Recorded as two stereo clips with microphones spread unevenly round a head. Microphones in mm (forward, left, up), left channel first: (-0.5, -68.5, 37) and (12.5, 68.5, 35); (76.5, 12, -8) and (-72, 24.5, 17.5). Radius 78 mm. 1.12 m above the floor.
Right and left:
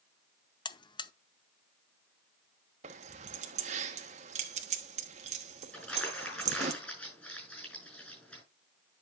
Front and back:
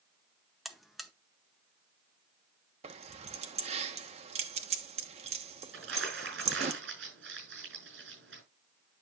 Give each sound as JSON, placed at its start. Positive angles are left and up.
{"t": 0.7, "sound": "a buzzer", "azimuth_deg": -80, "distance_m": 0.7}
{"t": 2.8, "sound": "keys jangling", "azimuth_deg": 130, "distance_m": 1.1}
{"t": 5.7, "sound": "crumpling", "azimuth_deg": -175, "distance_m": 6.5}